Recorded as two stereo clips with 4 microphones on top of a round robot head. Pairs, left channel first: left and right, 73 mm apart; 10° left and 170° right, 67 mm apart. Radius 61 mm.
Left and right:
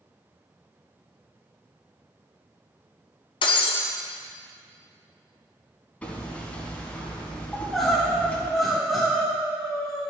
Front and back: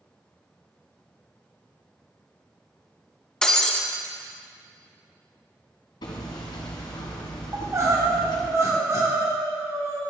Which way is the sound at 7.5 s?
Straight behind.